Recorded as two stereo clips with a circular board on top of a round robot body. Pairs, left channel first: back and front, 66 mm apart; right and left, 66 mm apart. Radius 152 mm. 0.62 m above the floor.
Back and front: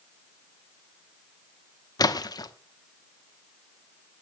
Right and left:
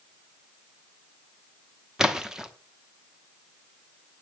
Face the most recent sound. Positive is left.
turn(degrees=170)